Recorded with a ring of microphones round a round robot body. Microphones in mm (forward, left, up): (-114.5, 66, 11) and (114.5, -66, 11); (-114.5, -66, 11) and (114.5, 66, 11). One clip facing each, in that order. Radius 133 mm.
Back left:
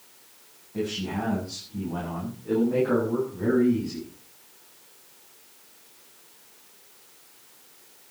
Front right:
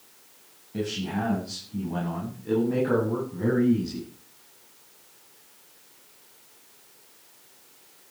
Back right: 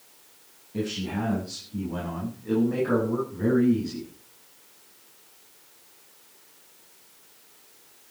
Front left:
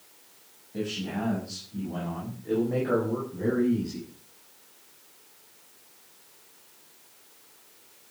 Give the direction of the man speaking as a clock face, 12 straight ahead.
2 o'clock.